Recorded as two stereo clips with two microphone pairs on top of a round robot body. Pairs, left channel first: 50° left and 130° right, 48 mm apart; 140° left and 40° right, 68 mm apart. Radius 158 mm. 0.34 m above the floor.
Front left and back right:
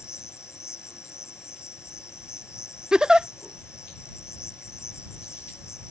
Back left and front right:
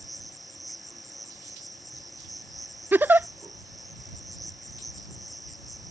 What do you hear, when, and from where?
0.0 s an insect: 50° left
2.9 s a giggle: 55° right